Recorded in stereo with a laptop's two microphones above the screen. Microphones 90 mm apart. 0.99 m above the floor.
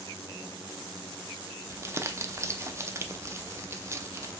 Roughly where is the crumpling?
Right.